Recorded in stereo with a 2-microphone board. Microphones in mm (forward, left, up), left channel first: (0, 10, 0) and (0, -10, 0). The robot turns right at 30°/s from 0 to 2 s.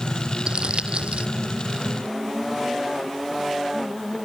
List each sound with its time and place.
0.5 s crumpling: 60° right (ahead or behind); by 1.3 s 75° right (ahead or behind)